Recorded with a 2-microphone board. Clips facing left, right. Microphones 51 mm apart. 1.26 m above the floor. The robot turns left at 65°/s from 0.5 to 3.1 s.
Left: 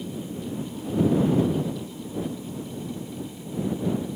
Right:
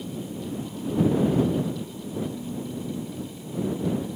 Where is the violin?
I don't hear a violin.